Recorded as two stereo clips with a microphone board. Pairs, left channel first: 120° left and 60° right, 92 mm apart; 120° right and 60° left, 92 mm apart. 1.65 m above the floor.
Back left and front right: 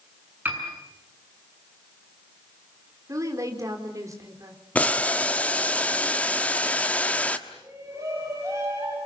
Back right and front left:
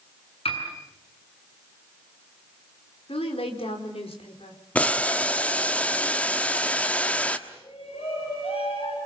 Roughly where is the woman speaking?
Behind right.